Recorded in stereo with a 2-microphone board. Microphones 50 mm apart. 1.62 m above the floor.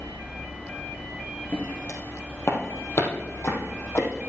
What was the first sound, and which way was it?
Footsteps, 45° left (ahead or behind).